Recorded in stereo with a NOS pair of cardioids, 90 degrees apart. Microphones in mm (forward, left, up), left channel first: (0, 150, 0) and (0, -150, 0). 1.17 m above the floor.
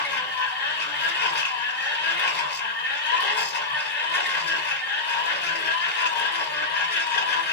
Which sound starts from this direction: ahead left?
A machine running, at 0.0 s.